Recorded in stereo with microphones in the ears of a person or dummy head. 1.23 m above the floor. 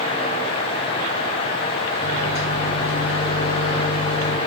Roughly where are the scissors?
I don't hear scissors.